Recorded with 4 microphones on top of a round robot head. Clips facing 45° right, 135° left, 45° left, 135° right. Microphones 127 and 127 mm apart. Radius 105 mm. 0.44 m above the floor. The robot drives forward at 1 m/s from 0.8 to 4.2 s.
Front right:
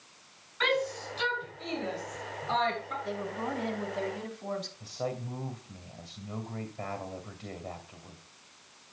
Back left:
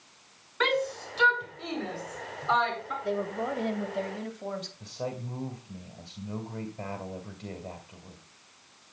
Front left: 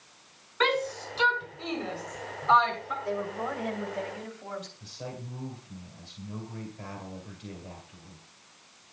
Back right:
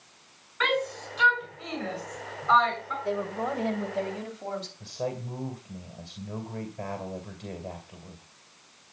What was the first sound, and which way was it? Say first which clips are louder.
A shout: back left 2 dB, front left 1 dB; 100° left.